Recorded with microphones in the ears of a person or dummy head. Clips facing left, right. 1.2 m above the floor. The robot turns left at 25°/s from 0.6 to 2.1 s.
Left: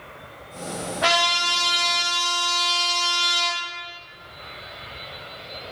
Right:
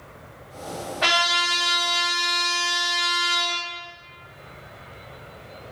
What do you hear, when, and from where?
1.0 s a trumpet: 20° right (ahead or behind), 1.1 m